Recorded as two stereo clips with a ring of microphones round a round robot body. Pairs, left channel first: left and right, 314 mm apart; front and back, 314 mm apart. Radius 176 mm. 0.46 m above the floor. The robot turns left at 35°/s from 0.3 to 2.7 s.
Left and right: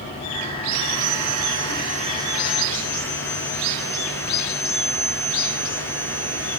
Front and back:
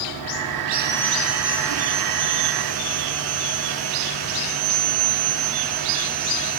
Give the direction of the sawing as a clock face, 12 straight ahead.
4 o'clock.